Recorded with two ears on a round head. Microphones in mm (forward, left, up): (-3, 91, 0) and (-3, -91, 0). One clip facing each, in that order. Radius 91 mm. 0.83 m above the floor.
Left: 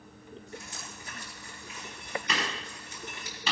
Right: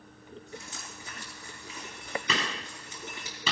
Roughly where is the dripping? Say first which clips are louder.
Even; right.